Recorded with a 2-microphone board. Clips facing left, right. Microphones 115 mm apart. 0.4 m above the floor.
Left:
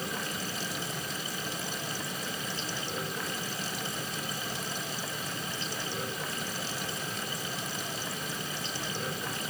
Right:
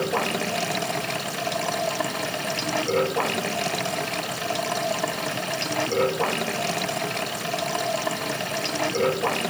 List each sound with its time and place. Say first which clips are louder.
0.0 s running water: right 12 dB; 80° right